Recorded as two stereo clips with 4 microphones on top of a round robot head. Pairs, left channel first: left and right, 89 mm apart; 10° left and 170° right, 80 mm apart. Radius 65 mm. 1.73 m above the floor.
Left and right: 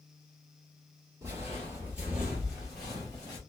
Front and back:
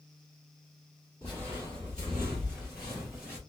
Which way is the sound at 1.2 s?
55° right.